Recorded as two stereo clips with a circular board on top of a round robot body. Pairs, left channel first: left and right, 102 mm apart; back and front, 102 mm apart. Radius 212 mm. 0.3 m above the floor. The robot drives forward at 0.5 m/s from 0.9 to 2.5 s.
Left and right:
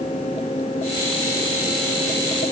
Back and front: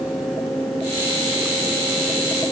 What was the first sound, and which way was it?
Only background noise.